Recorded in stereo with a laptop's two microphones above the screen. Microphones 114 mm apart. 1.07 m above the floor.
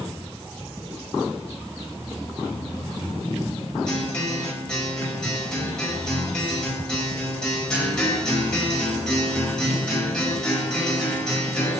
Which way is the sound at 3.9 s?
10° left (ahead or behind).